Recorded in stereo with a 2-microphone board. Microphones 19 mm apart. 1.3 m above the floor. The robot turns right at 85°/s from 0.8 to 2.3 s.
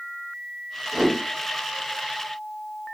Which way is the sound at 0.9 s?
60° right (ahead or behind).